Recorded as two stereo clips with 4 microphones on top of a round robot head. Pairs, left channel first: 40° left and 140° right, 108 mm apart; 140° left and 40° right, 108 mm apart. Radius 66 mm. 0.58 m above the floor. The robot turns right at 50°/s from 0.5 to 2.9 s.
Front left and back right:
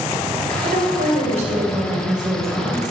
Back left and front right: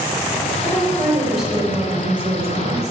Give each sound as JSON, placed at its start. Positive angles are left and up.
{"t": 0.6, "sound": "a woman speaking", "azimuth_deg": -165, "distance_m": 3.0}